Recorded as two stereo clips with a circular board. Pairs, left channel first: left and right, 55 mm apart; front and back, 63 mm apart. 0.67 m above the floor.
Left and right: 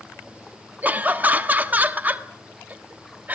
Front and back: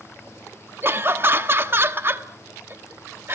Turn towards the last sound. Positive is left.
turn(degrees=-135)